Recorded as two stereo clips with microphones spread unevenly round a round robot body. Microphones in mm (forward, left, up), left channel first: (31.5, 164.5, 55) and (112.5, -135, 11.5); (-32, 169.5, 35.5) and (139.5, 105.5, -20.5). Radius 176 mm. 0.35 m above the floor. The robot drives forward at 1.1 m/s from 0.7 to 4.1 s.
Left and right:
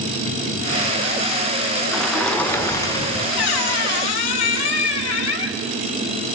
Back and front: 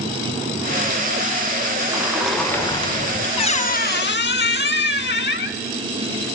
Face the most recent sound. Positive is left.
turn(degrees=130)